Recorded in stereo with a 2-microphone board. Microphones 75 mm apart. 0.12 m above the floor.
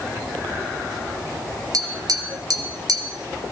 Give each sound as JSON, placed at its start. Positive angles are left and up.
{"t": 1.7, "sound": "tapping", "side_deg": -55, "distance_m": 3.0}